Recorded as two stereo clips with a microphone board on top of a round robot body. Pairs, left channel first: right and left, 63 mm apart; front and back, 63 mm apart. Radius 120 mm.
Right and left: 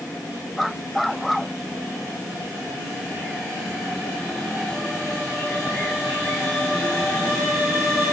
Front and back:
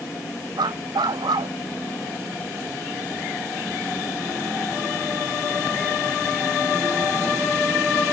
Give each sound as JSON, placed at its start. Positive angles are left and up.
{"t": 0.6, "sound": "a dog barking", "azimuth_deg": 180}